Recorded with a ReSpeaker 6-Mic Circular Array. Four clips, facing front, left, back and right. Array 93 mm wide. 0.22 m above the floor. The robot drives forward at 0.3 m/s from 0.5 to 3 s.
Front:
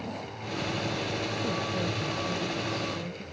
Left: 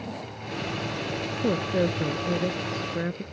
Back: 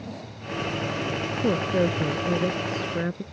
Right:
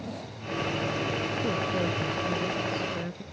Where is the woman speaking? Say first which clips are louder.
Left 7 dB, back 12 dB; 145° left; by 3.2 s 150° left.